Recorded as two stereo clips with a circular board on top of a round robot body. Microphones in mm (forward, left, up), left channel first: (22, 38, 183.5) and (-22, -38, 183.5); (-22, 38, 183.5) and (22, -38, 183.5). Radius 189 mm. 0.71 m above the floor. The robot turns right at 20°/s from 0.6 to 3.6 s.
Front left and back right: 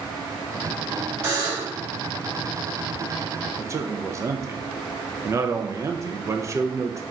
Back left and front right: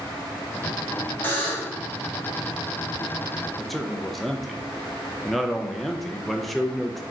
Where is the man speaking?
150° right, 0.7 m.